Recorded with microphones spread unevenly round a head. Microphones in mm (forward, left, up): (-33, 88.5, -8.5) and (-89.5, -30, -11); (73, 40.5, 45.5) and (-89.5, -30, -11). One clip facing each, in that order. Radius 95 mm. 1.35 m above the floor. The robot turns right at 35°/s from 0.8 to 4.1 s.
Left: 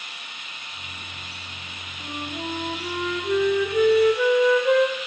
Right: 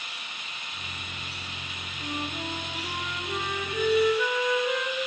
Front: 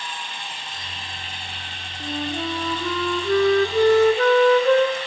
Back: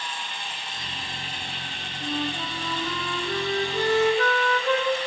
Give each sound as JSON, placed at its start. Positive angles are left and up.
{"t": 2.0, "sound": "a flute", "azimuth_deg": -10, "distance_m": 2.0}